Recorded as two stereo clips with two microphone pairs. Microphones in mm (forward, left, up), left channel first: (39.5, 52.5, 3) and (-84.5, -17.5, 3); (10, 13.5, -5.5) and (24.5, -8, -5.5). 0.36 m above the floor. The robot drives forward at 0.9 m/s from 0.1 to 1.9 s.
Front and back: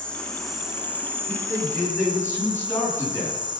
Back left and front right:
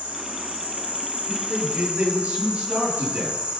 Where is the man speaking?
40° right, 8 m; by 3.6 s 45° right, 7.5 m.